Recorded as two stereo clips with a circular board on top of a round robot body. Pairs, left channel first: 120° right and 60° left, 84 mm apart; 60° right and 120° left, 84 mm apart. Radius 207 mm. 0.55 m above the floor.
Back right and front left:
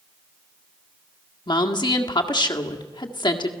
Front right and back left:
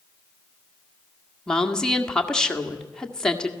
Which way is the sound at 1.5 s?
140° right.